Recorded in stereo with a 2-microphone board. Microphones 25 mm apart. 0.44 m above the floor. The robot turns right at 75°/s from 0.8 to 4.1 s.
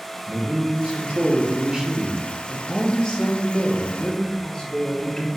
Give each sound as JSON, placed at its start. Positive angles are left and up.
{"t": 0.3, "sound": "a man speaking", "azimuth_deg": -130, "distance_m": 1.6}